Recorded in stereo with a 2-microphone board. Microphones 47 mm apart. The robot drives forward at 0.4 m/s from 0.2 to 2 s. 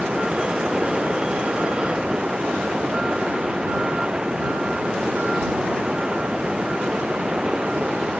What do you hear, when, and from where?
0.0 s running water: 20° right (ahead or behind); by 8.2 s 15° right (ahead or behind)